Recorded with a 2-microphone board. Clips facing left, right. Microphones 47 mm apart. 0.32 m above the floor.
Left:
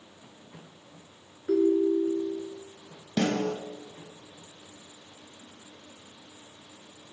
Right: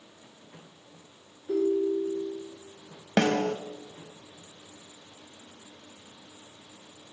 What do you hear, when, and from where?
1.5 s a ringtone: 65° left (ahead or behind), 1.5 m
3.2 s a snare drum: 55° right (ahead or behind), 0.9 m